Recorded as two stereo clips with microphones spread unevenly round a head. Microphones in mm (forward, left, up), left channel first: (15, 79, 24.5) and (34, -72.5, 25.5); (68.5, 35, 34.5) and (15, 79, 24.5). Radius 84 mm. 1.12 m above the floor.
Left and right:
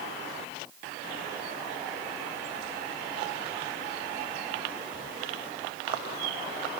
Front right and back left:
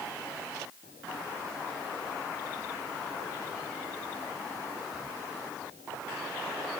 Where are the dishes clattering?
No dishes clattering in this recording.